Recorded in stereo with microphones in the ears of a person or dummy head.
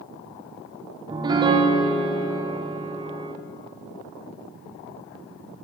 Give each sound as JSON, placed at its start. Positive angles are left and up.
{"t": 1.1, "sound": "a piano", "side_deg": -25, "distance_m": 0.6}